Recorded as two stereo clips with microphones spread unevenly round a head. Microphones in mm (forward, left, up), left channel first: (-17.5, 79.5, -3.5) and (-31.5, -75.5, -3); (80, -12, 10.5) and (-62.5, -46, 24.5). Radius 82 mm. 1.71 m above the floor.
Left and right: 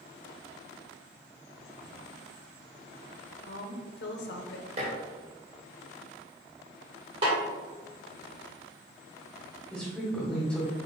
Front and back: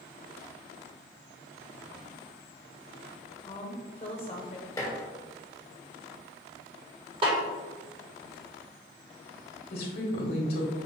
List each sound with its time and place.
3.5 s a woman speaking: 70° left, 0.8 m
4.8 s dishes clattering: 55° right, 1.4 m
7.2 s a snare drum: 135° right, 1.9 m
9.7 s a woman speaking: straight ahead, 1.7 m